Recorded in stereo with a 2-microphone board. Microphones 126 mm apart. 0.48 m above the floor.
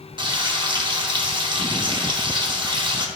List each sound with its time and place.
0.2 s frying: 40° right (ahead or behind), 0.6 m